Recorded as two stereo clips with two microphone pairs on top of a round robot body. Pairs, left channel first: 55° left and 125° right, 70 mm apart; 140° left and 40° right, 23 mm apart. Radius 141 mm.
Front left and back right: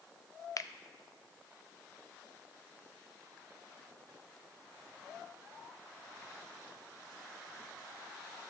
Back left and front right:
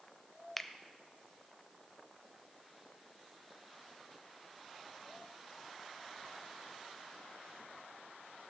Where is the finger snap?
55° left, 0.5 m.